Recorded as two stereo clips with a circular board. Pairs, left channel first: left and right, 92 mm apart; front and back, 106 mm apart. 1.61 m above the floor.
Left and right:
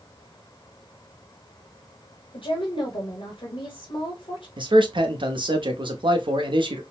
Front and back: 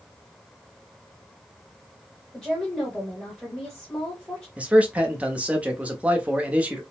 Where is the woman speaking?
85° left, 1.0 m.